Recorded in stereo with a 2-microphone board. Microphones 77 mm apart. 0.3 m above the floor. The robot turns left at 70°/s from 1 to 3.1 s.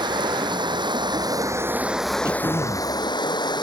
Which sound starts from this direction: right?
Running water, at 0.0 s.